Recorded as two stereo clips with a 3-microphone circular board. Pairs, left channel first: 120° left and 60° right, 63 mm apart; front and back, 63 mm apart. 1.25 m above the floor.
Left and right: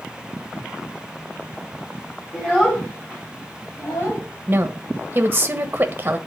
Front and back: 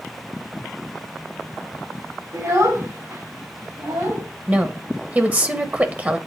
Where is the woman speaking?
120° right, 1.1 m.